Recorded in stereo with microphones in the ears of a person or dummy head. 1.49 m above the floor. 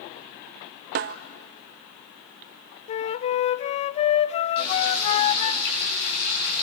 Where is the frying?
50° left (ahead or behind), 10 m.